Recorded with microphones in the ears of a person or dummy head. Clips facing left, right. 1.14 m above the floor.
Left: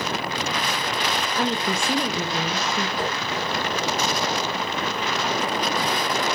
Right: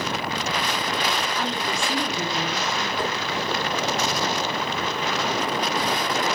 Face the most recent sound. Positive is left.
turn(degrees=25)  # may be behind; listen again after turning